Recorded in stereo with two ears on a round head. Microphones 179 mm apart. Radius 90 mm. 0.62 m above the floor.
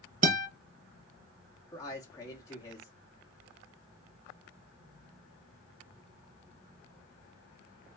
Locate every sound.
0.2 s a guitar: 40° right (ahead or behind), 0.6 m
1.7 s a man speaking: 15° left (ahead or behind), 0.8 m